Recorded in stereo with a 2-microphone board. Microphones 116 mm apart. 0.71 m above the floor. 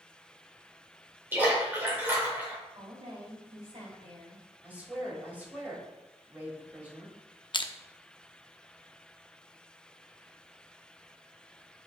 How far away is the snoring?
I don't hear snoring.